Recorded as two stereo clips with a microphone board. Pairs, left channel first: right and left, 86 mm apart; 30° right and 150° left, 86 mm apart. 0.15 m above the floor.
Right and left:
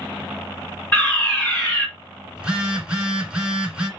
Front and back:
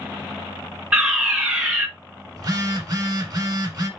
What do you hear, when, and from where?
0.9 s a fire alarm: 150° right, 2 m
2.4 s a phone buzzing: 165° left, 1.7 m